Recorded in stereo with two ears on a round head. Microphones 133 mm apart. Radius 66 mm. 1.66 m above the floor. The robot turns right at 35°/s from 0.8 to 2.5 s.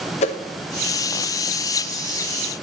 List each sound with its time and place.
0.2 s a whoosh: 45° left (ahead or behind), 1.0 m